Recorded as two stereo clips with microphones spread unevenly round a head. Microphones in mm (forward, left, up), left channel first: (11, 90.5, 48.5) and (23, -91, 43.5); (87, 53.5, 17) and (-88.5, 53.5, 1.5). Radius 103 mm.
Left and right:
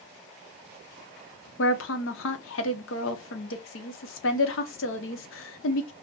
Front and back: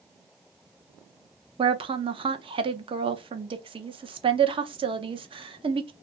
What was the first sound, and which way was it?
A woman speaking, 115° left.